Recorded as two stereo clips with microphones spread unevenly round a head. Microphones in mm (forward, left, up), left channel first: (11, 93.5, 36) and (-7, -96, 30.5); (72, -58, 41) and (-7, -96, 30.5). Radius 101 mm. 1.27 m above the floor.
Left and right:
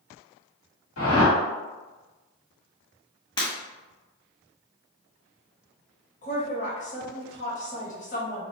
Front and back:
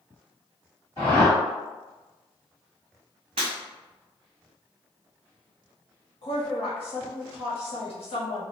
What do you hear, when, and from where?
1.0 s a whoosh: 90° left, 1.6 m
3.4 s breaking glass: 150° left, 1.3 m
6.2 s a woman speaking: 35° left, 1.4 m